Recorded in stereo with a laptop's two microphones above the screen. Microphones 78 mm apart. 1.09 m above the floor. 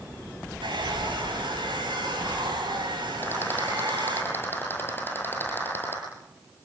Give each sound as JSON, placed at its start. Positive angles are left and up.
{"t": 0.6, "sound": "a hair dryer", "side_deg": -80, "distance_m": 6.0}
{"t": 3.2, "sound": "a rattle", "side_deg": 25, "distance_m": 9.5}